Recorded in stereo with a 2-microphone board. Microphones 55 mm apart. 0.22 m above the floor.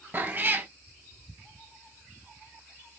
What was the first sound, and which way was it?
A cat meowing, 35° right (ahead or behind).